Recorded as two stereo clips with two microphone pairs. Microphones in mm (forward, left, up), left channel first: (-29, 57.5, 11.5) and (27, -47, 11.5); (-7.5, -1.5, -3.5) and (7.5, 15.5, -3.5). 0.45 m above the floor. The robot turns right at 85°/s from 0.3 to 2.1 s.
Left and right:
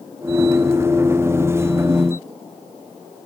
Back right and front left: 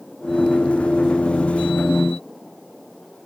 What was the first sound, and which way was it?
Only background noise.